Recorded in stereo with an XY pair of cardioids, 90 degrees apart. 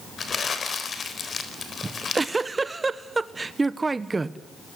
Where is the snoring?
I don't hear snoring.